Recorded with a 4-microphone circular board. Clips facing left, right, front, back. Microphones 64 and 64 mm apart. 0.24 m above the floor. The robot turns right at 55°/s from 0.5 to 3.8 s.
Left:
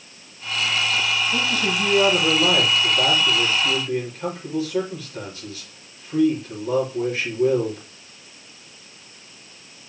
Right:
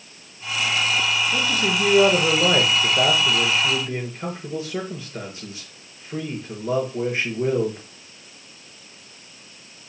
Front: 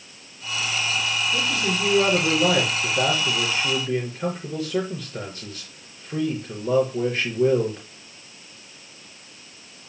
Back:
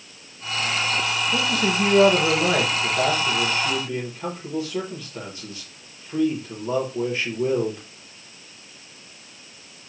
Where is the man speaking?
165° right, 4.5 m; by 7.8 s 25° right, 4.5 m.